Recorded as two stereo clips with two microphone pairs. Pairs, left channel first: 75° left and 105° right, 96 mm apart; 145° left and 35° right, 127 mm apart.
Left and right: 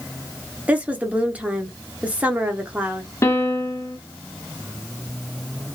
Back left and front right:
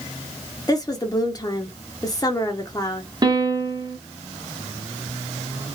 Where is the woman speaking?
170° right, 0.8 m.